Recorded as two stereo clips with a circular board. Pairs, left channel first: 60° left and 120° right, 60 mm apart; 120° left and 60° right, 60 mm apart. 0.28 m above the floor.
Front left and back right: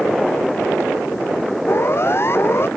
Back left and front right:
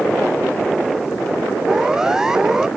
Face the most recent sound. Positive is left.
turn(degrees=20)